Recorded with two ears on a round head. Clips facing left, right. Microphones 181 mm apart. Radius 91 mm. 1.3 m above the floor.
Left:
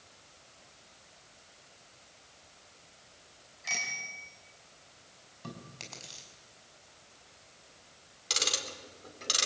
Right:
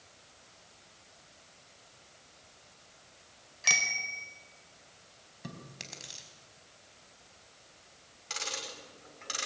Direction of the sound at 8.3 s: 50° left (ahead or behind).